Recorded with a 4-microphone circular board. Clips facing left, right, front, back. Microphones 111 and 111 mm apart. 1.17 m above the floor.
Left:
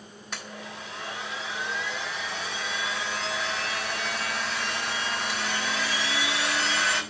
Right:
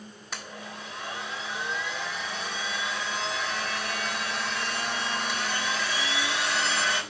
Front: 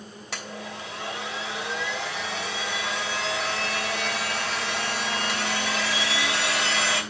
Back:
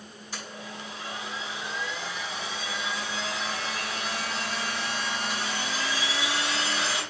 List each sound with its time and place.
0.3 s a blender: straight ahead, 3.5 m